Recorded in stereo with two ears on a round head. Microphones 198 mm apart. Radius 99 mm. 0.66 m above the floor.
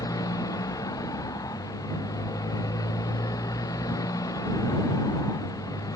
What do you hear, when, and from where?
0.0 s a motorcycle: 15° left (ahead or behind)